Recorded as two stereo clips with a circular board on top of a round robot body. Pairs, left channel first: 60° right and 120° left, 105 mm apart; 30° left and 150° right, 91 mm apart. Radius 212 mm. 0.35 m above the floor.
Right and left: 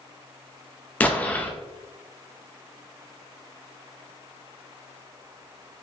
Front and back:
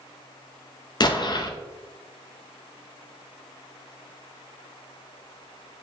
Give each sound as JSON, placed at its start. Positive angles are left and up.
{"t": 1.0, "sound": "an explosion", "azimuth_deg": 10, "distance_m": 0.6}